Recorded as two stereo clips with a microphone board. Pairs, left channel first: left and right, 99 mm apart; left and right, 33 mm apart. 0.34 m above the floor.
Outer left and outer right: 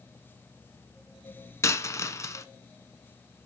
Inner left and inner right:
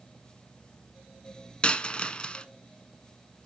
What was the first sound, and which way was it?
A dropped coin, 30° left (ahead or behind).